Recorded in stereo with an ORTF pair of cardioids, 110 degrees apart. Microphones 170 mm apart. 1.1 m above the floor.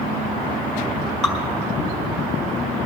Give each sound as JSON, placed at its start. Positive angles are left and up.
{"t": 1.2, "sound": "dripping", "azimuth_deg": 5, "distance_m": 3.0}